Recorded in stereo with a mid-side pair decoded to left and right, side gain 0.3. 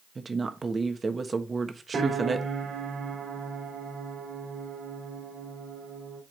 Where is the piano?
65° right, 2 m.